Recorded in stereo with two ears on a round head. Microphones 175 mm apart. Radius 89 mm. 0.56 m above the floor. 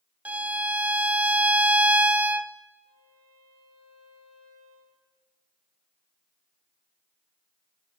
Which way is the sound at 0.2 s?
5° right (ahead or behind).